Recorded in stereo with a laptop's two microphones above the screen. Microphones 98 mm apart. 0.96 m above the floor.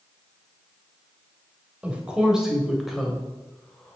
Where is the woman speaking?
10° right (ahead or behind), 3.5 m; by 4.0 s 10° left (ahead or behind), 3.5 m.